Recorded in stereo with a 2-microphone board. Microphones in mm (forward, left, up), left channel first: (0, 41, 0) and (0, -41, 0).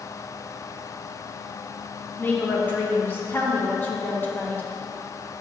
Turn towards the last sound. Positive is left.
turn(degrees=25)  # may be behind; listen again after turning